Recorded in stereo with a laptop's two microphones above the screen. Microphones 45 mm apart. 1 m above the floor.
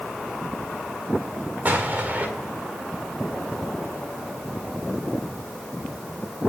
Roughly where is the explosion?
Right.